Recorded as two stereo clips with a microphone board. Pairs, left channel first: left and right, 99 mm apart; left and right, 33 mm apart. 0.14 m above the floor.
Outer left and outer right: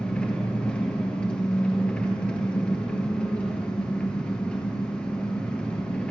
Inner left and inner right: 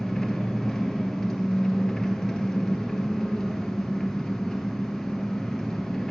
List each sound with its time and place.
0.0 s an engine running: 10° left (ahead or behind), 1.5 m